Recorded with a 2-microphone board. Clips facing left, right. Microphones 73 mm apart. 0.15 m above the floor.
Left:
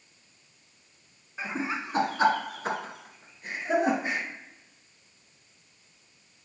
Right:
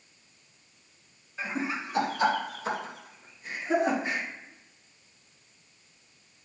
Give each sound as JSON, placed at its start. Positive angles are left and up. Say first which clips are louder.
{"t": 1.4, "sound": "laughter", "louder": "even", "side_deg": 20, "distance_m": 1.5}